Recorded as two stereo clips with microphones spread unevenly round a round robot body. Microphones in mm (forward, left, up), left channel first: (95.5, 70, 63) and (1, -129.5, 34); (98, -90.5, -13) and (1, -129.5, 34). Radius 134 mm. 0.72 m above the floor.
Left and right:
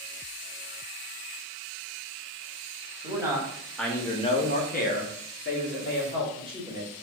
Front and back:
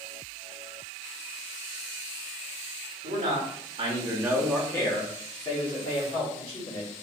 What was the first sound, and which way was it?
A man speaking, straight behind.